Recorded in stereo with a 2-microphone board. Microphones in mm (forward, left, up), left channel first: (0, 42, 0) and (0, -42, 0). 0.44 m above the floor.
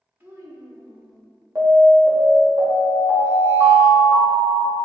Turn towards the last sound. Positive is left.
turn(degrees=-50)  # may be behind; listen again after turning